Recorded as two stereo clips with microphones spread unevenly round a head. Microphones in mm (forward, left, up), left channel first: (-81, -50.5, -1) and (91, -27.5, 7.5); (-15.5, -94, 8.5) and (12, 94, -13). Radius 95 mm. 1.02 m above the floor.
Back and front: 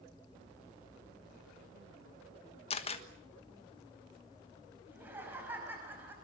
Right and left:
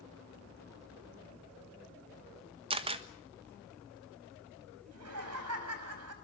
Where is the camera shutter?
135° left, 1.3 m.